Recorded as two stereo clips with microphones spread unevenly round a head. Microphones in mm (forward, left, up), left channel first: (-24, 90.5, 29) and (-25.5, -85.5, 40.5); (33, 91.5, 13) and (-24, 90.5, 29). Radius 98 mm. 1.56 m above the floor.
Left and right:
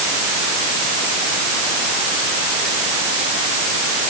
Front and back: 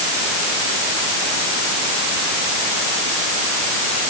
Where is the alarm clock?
I don't hear an alarm clock.